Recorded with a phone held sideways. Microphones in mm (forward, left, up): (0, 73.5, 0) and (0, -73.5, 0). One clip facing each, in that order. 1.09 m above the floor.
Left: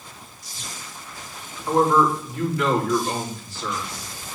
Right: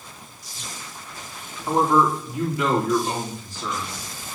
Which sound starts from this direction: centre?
A man speaking, at 1.7 s.